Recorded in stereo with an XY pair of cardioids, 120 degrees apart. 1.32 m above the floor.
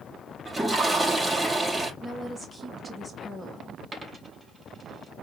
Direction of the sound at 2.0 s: 10° left.